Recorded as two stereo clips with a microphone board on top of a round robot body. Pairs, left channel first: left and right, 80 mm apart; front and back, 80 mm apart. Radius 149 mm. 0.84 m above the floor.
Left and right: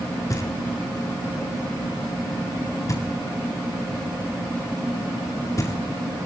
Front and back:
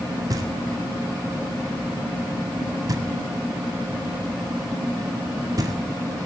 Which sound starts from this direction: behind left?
Knocking, at 0.3 s.